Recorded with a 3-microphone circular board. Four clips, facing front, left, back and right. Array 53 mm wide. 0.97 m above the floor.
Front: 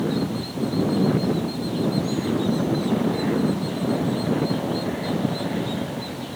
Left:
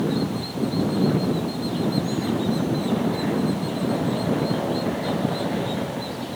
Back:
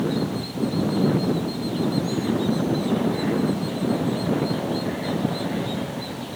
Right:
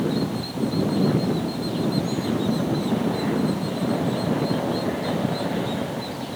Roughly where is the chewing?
No chewing in this recording.